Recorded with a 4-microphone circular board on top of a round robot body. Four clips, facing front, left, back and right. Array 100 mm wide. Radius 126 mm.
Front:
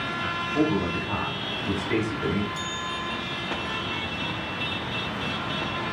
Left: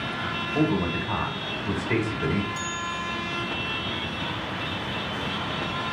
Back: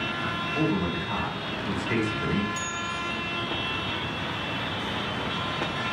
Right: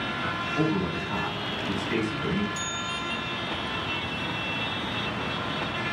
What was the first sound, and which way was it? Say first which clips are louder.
A man speaking: left 3 dB, front 3 dB; 80° left.